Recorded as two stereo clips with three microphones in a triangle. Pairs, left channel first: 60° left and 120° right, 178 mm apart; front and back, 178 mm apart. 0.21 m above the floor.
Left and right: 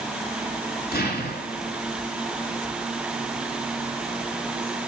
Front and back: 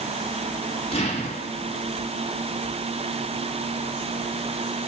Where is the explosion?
50° left, 3 m.